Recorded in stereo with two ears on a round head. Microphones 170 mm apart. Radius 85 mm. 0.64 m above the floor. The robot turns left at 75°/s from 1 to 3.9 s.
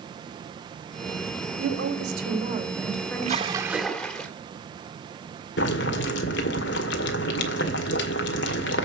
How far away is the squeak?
No squeak in this recording.